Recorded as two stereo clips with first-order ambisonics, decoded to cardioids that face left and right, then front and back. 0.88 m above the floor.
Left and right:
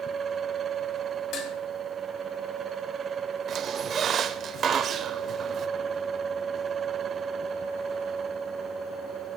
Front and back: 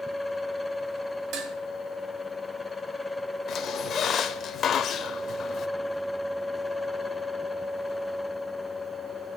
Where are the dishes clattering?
135° left, 1.9 m.